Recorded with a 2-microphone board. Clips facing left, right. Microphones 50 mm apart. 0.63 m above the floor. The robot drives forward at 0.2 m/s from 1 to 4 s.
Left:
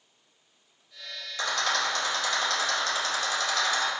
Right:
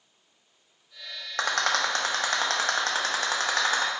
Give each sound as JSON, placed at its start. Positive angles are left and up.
{"t": 1.4, "sound": "a rattle", "side_deg": -60, "distance_m": 0.7}